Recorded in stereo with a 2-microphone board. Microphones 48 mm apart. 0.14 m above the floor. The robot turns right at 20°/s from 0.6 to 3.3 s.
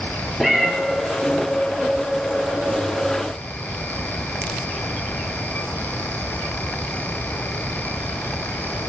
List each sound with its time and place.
0.4 s a cat meowing: 5° right (ahead or behind), 0.9 m; by 0.7 s 10° right (ahead or behind), 0.9 m